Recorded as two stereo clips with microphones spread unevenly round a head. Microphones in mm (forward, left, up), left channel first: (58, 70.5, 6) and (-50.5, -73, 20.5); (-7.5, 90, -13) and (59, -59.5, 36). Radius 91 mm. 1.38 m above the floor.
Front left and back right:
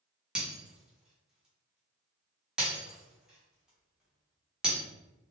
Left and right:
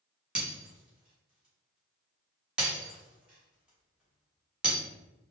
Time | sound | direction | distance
0.3 | breaking glass | 60° right | 1.0 m